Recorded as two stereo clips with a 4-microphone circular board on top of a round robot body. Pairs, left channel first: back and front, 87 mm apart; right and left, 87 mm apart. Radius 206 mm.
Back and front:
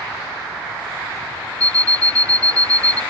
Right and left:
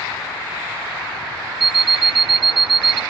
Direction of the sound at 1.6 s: 105° left.